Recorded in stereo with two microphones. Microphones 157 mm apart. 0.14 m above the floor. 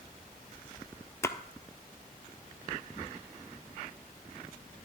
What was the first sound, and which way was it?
A splash, 20° left (ahead or behind).